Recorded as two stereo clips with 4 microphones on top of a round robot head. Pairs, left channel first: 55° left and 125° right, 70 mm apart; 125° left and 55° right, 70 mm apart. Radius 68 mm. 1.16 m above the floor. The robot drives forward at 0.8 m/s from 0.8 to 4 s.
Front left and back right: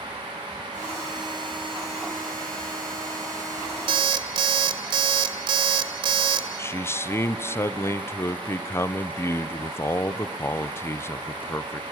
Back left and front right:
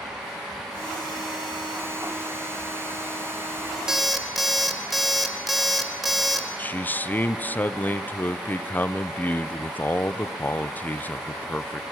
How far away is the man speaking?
About 0.7 m.